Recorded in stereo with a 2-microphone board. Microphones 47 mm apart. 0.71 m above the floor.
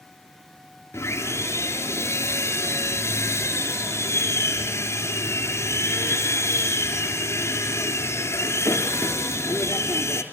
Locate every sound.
0.9 s sawing: 85° left, 3.5 m